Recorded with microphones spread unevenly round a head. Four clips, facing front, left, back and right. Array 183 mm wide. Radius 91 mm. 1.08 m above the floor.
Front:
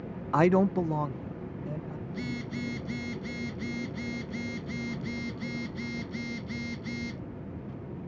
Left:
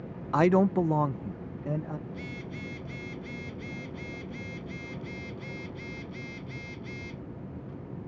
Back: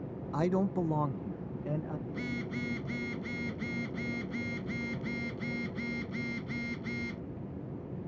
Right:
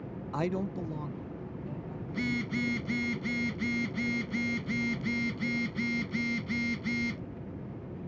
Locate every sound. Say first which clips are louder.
0.3 s a man speaking: left 10 dB, front 7 dB; 40° left; by 2.0 s 110° left
2.1 s a phone buzzing: right 7 dB, front 1 dB; 90° right